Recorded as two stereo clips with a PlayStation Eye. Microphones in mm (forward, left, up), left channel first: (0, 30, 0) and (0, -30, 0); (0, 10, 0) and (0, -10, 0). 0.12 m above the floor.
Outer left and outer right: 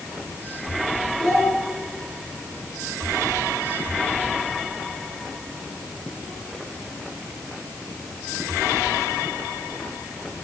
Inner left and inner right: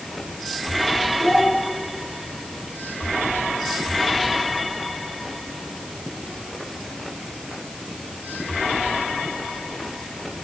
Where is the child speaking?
Centre (ahead or behind), 8 m.